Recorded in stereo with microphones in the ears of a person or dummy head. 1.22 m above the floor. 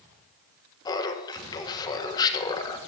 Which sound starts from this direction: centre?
Laughter, at 0.8 s.